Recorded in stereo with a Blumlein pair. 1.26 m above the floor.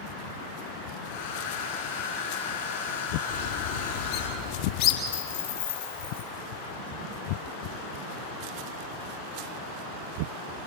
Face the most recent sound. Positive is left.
turn(degrees=65)